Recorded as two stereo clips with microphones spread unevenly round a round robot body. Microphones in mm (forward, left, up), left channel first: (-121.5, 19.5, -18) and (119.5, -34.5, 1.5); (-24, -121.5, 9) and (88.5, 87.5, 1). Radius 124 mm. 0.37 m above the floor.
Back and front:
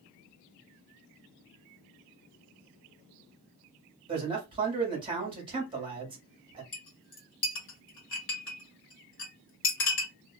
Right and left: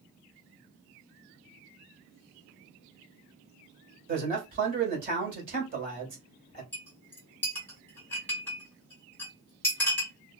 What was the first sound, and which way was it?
A man speaking, 55° left.